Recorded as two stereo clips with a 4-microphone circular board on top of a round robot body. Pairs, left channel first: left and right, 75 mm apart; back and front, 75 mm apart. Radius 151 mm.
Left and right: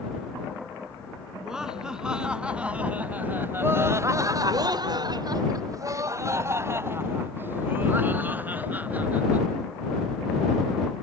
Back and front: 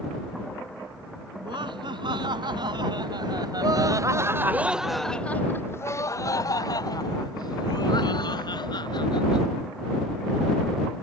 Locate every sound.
1.4 s laughter: 5° right; by 9.4 s 160° right